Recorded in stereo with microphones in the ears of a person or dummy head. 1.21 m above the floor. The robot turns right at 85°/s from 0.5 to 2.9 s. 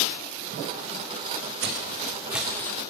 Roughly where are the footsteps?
Right.